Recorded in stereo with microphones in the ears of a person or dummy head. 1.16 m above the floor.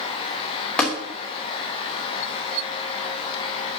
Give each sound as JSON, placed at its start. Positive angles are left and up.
{"t": 0.8, "sound": "tapping", "side_deg": 15, "distance_m": 3.0}